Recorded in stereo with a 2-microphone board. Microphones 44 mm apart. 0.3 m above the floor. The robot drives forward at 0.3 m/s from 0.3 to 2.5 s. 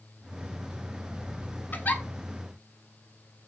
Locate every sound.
1.7 s a giggle: 45° left (ahead or behind), 0.6 m; by 2.0 s 40° left (ahead or behind), 0.6 m